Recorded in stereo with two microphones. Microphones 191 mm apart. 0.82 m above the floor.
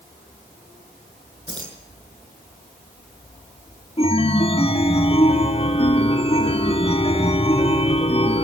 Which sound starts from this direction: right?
Keys jangling, at 1.5 s.